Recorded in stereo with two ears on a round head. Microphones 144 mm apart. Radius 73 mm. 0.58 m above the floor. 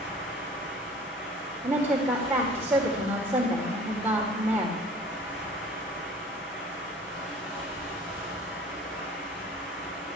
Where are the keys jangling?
I don't hear keys jangling.